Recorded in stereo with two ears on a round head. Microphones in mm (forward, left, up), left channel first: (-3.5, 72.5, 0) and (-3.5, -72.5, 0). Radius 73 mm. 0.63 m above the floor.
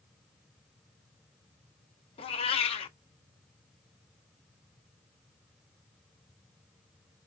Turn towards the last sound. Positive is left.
turn(degrees=35)  # may be behind; listen again after turning